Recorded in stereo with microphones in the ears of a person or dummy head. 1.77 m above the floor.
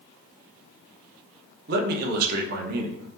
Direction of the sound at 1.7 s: 50° right (ahead or behind).